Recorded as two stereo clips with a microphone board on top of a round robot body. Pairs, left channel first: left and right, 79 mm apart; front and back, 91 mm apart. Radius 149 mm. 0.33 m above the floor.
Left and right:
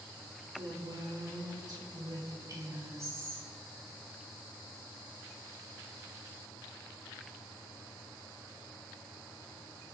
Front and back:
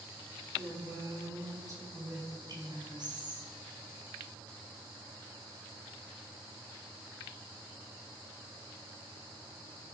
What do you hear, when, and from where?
0.5 s a woman speaking: 120° right, 6 m; by 3.5 s 150° right, 3.5 m